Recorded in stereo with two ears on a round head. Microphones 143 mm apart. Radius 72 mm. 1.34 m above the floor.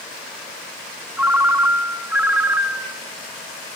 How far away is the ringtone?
About 0.8 m.